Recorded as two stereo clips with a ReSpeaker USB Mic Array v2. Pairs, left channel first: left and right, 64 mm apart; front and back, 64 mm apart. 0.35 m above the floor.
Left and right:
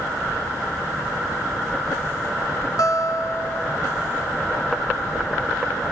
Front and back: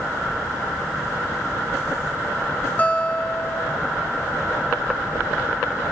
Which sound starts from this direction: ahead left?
A guitar, at 2.8 s.